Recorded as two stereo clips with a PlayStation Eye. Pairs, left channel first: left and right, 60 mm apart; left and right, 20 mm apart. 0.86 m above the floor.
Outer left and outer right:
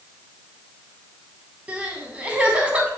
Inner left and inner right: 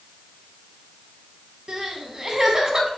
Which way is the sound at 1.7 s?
20° right (ahead or behind).